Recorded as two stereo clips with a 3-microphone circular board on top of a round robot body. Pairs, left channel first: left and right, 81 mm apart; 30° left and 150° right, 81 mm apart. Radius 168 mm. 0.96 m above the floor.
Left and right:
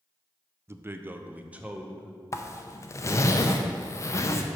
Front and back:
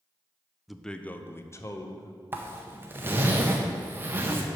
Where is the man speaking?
65° right, 0.7 m; by 2.1 s 15° right, 1.3 m.